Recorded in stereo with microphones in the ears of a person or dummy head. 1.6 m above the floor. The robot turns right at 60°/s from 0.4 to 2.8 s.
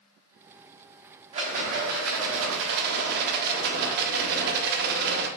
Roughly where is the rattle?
Behind right.